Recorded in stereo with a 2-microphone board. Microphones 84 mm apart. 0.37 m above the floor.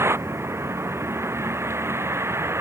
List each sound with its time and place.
0.0 s a vehicle: 35° right (ahead or behind)